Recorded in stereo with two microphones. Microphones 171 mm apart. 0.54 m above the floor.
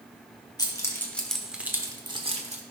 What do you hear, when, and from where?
0.6 s keys jangling: 25° left (ahead or behind), 1.4 m; by 2.6 s 45° right (ahead or behind), 1.3 m